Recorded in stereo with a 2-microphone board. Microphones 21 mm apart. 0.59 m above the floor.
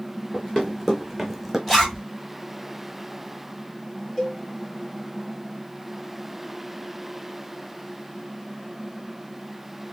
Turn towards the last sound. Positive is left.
turn(degrees=5)  # may be behind; listen again after turning